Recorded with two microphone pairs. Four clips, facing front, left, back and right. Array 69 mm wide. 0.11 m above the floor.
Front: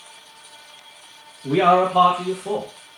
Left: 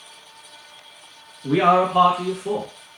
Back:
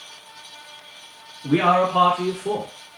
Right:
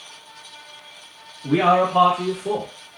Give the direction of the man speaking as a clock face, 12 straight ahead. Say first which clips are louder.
Even, front 2 dB; 7 o'clock.